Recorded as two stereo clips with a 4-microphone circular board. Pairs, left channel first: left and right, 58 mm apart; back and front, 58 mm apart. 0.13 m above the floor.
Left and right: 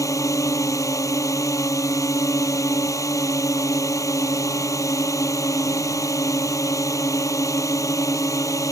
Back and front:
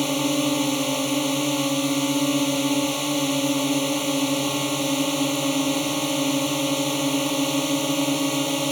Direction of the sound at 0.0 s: 90° left.